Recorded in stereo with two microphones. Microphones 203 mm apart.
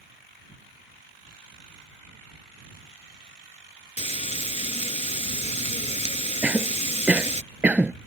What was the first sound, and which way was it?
Frying, 35° left (ahead or behind).